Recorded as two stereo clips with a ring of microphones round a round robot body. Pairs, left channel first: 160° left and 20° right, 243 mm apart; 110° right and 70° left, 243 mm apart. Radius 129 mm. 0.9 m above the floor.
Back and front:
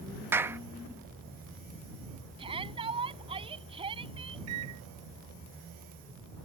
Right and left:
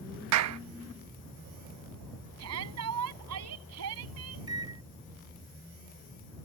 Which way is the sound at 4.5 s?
5° right.